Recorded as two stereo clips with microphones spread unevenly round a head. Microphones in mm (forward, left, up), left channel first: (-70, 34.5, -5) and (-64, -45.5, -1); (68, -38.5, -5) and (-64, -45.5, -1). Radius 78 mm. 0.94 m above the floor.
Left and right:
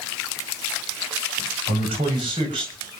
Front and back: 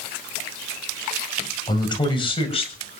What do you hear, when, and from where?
1.7 s a man speaking: 55° right, 5 m; by 3.0 s 35° right, 5.5 m